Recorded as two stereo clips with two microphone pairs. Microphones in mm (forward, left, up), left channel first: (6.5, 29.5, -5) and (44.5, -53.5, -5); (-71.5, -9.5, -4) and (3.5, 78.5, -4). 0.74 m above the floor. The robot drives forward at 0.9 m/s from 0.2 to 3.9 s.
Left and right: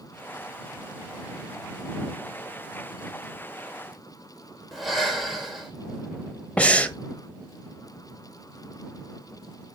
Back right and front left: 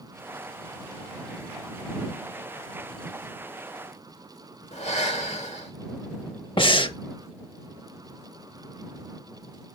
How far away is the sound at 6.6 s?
About 0.8 m.